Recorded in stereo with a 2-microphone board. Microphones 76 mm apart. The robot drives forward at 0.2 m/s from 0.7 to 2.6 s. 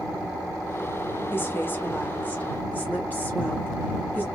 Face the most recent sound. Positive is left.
turn(degrees=25)  # may be behind; listen again after turning